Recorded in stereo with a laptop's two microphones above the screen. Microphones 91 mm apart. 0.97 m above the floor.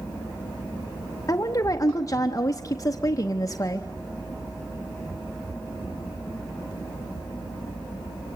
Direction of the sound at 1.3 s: 35° left (ahead or behind).